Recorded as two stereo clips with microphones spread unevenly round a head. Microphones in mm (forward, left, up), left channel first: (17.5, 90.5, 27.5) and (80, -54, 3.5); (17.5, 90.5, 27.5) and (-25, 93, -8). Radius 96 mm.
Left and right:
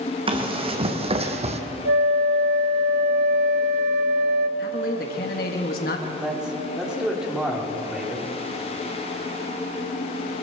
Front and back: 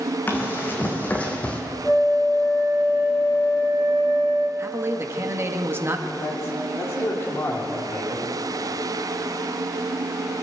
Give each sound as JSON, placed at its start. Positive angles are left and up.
{"t": 0.3, "sound": "running footsteps", "azimuth_deg": -10, "distance_m": 3.5}
{"t": 1.9, "sound": "a flute", "azimuth_deg": -55, "distance_m": 1.5}
{"t": 4.6, "sound": "a man speaking", "azimuth_deg": 160, "distance_m": 2.5}
{"t": 6.2, "sound": "a man speaking", "azimuth_deg": 20, "distance_m": 4.0}